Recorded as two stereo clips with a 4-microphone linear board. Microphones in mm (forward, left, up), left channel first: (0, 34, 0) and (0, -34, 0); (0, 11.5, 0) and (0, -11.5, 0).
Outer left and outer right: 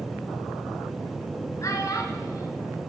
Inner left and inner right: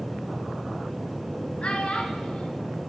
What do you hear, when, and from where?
1.6 s a child speaking: 50° left (ahead or behind), 2.5 m